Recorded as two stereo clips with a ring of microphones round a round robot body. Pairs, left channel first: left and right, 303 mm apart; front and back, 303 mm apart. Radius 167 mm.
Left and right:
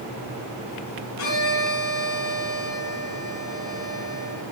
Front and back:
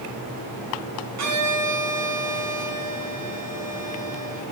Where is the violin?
145° left, 4 m.